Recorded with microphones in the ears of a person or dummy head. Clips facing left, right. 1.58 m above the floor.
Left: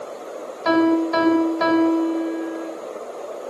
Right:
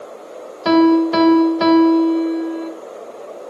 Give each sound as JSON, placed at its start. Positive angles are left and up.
{"t": 0.7, "sound": "a piano", "side_deg": -45, "distance_m": 1.5}